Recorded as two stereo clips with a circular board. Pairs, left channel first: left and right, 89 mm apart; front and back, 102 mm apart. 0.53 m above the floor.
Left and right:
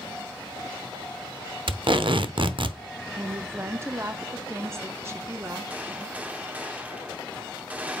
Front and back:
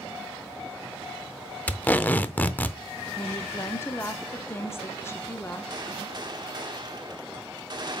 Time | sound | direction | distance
1.7 | tape being pulled | 75° right | 0.7 m
3.2 | a woman speaking | 50° right | 0.9 m
5.7 | a gunshot | 160° right | 1.2 m